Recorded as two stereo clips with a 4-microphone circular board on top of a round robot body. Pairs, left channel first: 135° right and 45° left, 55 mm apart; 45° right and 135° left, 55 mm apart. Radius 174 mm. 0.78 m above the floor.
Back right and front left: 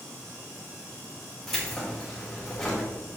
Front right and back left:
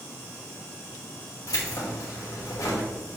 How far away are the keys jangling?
About 2.5 m.